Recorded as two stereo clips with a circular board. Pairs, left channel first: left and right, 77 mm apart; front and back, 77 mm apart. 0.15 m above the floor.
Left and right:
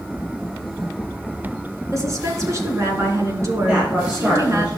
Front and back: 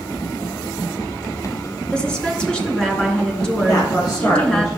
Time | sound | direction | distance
1.9 | a woman speaking | 75° right | 1.9 m
3.7 | a man speaking | 15° right | 2.5 m